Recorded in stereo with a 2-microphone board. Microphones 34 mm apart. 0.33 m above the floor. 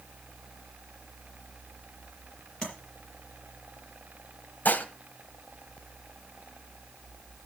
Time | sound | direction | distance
2.6 | tapping | 25° left (ahead or behind) | 5 m
4.7 | dishes clattering | 55° left (ahead or behind) | 1.1 m